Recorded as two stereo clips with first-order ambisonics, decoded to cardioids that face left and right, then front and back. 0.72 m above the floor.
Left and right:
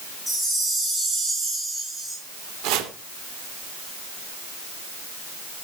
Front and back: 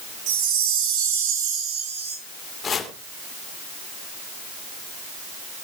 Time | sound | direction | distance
0.3 | a chime | straight behind | 5.5 m
2.6 | chopping | 70° right | 2.5 m